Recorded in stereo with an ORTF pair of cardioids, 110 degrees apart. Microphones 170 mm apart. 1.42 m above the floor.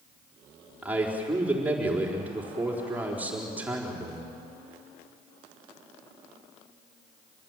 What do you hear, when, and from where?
0.8 s a man speaking: 10° right, 4.5 m